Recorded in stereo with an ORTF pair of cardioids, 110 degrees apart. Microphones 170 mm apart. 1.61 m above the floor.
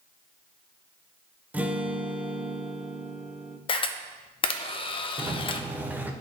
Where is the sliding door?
10° right, 0.8 m.